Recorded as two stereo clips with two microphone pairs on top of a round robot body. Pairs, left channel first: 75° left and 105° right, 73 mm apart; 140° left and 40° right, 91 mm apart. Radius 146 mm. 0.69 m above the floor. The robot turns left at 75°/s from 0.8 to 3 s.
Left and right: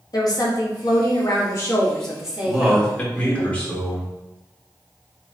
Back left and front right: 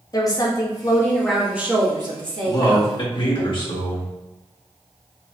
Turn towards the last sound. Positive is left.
turn(degrees=145)